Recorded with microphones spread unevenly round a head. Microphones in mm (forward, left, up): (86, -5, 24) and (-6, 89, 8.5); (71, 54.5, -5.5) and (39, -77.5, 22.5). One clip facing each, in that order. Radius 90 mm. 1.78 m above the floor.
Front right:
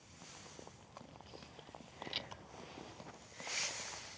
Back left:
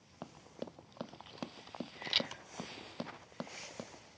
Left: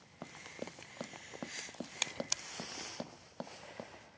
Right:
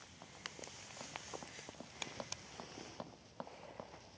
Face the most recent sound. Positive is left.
turn(degrees=150)